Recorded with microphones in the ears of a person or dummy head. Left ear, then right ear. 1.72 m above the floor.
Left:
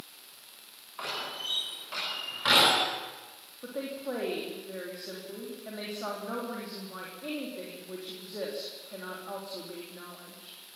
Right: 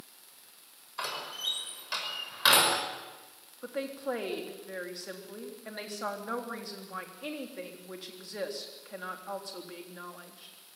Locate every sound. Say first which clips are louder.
1.0 s a door slam: even; 70° right (ahead or behind), 5.5 m
3.6 s a woman speaking: right 1 dB; 80° right, 3.5 m